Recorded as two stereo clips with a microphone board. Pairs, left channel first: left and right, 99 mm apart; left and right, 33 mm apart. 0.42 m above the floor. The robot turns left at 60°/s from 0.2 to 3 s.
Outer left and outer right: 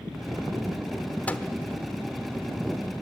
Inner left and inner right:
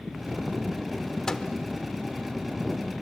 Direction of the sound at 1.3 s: 20° left (ahead or behind).